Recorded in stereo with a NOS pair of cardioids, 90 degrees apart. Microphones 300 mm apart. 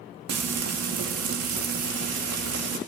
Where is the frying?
55° right, 2.5 m.